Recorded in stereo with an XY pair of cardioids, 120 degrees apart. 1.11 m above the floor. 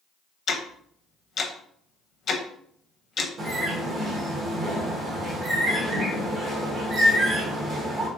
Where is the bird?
45° right, 1.1 m.